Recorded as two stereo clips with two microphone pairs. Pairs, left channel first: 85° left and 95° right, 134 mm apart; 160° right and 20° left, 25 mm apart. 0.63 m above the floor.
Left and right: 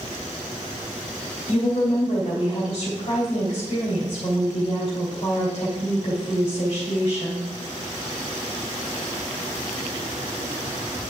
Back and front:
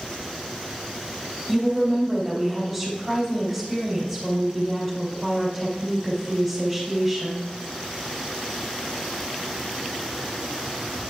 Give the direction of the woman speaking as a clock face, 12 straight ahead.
8 o'clock.